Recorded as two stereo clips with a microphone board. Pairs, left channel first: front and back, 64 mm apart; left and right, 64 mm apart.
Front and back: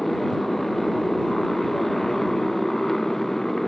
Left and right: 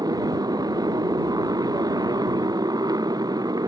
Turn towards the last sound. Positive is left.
turn(degrees=-85)